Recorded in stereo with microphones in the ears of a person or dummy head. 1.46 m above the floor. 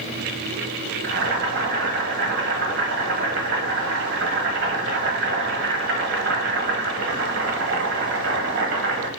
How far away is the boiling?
About 1.3 m.